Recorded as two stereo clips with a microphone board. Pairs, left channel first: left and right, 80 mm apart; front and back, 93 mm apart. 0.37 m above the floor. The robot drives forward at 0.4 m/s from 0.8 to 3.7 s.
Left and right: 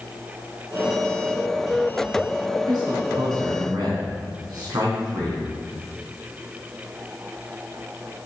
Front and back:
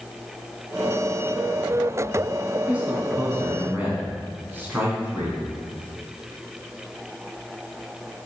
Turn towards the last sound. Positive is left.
turn(degrees=-115)